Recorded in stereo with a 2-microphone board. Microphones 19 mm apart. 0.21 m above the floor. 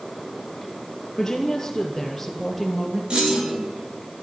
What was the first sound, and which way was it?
A woman speaking, 25° left (ahead or behind).